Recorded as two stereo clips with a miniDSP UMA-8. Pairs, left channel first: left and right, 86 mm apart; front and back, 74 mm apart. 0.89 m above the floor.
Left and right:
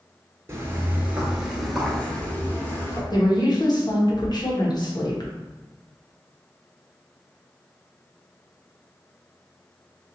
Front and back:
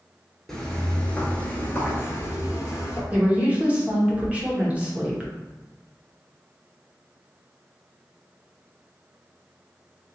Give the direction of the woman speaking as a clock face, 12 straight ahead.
8 o'clock.